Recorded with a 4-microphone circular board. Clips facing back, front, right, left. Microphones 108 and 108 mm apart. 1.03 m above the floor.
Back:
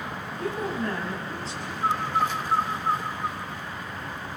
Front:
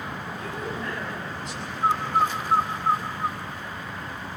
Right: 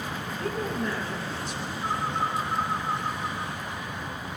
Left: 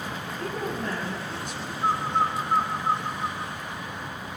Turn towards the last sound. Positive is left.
turn(degrees=65)